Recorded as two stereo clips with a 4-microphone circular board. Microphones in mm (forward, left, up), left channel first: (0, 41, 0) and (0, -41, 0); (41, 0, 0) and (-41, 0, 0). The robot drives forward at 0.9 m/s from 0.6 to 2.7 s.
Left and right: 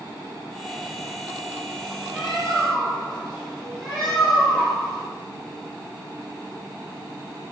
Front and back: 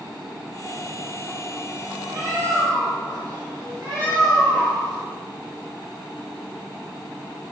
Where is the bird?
165° left, 1.7 m; by 5.0 s 170° left, 2 m.